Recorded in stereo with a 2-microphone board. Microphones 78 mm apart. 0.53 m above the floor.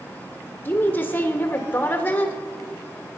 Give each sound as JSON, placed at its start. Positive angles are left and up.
{"t": 0.7, "sound": "a woman speaking", "side_deg": 25, "distance_m": 1.7}